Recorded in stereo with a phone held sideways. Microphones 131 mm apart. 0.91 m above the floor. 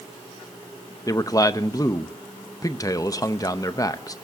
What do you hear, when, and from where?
1.1 s a man speaking: 25° left (ahead or behind), 0.6 m